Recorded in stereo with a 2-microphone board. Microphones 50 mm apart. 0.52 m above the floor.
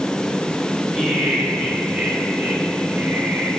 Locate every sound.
0.9 s laughter: centre (ahead or behind), 2.5 m; by 3.5 s 35° right (ahead or behind), 3 m